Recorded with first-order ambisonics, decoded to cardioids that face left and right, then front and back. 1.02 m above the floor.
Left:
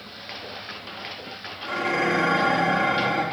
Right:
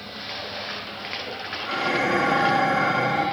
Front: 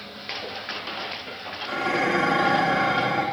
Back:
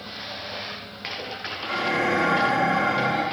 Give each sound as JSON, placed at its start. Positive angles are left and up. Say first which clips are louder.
{"t": 1.6, "sound": "dishes clattering", "louder": "even, even", "azimuth_deg": 65, "distance_m": 1.4}